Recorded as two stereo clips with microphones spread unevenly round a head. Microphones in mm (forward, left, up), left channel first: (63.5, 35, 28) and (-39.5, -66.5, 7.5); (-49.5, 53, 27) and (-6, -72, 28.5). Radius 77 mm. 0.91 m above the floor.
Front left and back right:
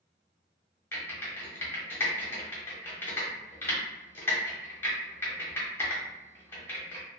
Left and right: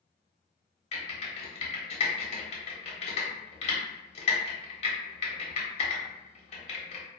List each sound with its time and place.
0.9 s typing on a keyboard: 125° left, 0.8 m